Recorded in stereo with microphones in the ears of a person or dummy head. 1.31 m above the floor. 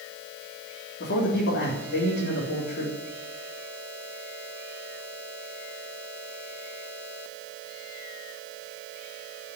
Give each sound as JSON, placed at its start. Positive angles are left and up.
{"t": 1.0, "sound": "a man speaking", "side_deg": 60, "distance_m": 3.5}